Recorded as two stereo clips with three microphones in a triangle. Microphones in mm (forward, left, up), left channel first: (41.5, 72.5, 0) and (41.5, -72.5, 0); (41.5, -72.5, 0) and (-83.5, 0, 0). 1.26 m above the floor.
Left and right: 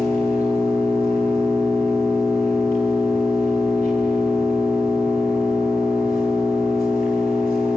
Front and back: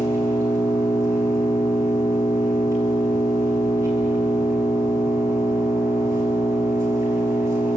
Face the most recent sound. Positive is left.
turn(degrees=80)